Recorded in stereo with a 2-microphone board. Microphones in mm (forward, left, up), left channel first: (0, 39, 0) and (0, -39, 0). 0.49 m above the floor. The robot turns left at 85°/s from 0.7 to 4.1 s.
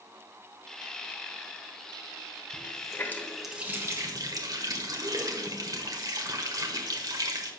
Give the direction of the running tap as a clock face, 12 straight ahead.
10 o'clock.